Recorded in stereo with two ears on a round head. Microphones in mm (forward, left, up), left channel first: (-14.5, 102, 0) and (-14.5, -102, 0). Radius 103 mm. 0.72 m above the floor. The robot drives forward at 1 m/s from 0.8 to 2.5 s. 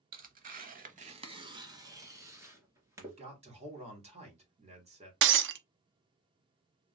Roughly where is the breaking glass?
Right.